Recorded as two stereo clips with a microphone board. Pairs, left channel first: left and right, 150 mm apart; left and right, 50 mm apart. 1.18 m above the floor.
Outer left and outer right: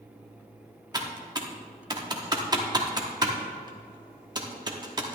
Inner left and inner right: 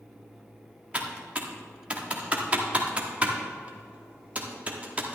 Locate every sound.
0.9 s typing on a keyboard: 25° right (ahead or behind), 1.2 m